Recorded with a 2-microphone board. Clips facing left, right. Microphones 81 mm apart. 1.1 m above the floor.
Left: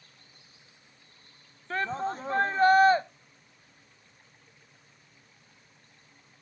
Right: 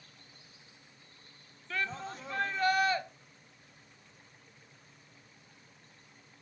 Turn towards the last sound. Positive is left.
turn(degrees=35)  # may be behind; listen again after turning